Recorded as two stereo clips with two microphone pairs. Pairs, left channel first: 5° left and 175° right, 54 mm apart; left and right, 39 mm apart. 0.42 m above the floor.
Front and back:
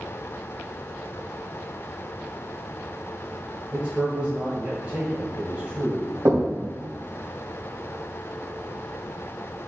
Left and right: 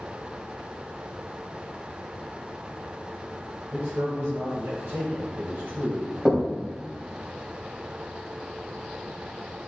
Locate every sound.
3.7 s a man speaking: 110° right, 1.9 m
6.2 s knocking: 170° right, 2.5 m